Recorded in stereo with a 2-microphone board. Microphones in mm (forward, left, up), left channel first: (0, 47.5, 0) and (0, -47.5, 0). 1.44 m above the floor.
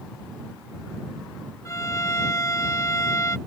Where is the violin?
30° left (ahead or behind).